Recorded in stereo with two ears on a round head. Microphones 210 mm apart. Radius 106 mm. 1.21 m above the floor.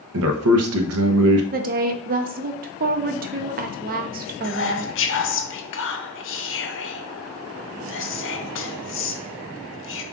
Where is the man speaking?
70° right (ahead or behind), 0.8 m.